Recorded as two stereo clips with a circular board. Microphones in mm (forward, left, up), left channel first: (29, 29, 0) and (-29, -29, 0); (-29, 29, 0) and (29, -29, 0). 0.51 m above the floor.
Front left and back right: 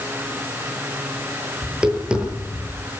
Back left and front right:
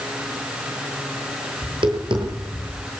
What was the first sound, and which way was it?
Tapping, 60° right.